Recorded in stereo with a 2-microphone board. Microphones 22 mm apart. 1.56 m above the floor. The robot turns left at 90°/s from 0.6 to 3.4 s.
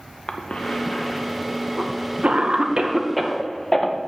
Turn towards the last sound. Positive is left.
turn(degrees=15)  # may be behind; listen again after turning